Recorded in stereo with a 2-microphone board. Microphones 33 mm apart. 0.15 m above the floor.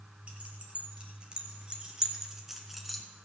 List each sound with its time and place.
0.3 s keys jangling: 35° right (ahead or behind), 2.5 m; by 3.0 s centre (ahead or behind), 1.1 m